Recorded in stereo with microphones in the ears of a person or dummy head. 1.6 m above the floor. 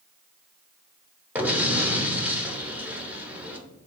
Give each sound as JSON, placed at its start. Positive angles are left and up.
{"t": 1.4, "sound": "an explosion", "side_deg": -5, "distance_m": 0.7}